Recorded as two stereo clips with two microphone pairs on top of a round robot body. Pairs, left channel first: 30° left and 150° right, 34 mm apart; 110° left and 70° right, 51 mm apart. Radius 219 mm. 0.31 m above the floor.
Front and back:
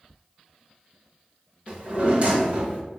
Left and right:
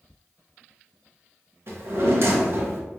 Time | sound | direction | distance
1.7 | a drawer | 100° right | 1.0 m